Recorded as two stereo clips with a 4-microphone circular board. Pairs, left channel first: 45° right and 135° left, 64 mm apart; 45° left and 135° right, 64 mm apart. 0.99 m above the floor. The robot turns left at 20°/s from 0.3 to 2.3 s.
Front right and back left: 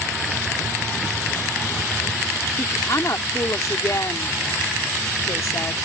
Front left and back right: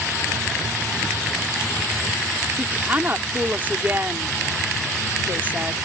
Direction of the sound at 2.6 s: 70° right.